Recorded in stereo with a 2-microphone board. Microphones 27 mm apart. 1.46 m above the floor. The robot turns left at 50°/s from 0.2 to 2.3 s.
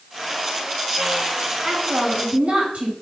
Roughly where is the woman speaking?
Ahead.